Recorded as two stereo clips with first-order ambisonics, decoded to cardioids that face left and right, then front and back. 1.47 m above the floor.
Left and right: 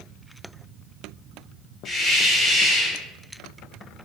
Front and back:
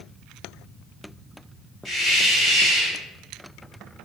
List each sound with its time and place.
1.9 s a hiss: 50° left, 1.4 m